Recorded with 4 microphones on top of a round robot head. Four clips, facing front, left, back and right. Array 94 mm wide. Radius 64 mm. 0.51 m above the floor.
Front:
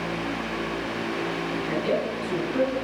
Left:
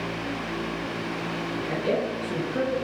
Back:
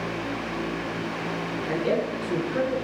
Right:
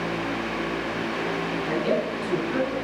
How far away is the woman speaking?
About 7.5 m.